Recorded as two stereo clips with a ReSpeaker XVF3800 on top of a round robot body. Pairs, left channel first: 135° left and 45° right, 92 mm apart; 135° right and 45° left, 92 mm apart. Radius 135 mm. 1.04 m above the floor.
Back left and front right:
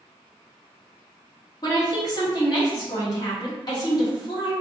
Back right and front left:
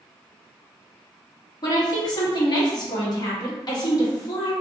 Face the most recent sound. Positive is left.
turn(degrees=180)